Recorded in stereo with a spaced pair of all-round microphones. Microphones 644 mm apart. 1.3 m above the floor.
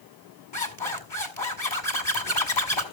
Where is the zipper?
45° left (ahead or behind), 2 m.